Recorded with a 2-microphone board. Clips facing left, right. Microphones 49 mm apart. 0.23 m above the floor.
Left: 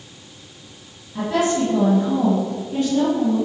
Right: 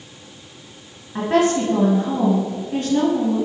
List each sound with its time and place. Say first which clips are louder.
1.1 s a woman speaking: right 2 dB; 50° right (ahead or behind), 2 m